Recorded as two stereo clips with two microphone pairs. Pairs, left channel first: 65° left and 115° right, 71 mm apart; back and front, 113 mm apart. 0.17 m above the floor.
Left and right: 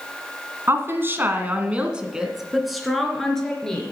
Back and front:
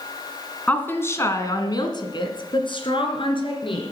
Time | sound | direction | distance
0.7 | a woman speaking | 110° right | 1.8 m